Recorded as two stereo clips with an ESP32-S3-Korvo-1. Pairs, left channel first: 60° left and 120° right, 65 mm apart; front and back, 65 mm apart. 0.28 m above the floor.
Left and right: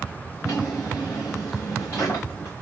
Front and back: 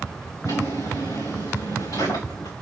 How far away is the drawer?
About 7.5 m.